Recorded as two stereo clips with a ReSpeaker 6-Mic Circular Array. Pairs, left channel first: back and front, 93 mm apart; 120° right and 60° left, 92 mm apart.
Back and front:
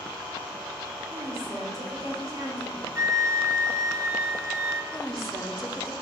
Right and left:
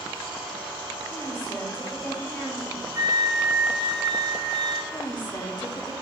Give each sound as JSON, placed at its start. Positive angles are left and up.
{"t": 1.1, "sound": "a woman speaking", "azimuth_deg": -65, "distance_m": 1.9}
{"t": 3.0, "sound": "a flute", "azimuth_deg": 45, "distance_m": 0.7}
{"t": 4.9, "sound": "a woman speaking", "azimuth_deg": -90, "distance_m": 1.2}